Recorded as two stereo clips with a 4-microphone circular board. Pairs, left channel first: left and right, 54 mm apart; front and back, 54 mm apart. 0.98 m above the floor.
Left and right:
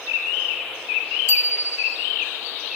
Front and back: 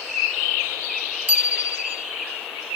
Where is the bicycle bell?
120° left, 2 m.